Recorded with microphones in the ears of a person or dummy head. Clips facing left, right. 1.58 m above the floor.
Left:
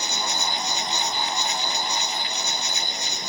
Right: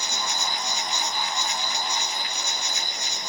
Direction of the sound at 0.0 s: 75° left (ahead or behind).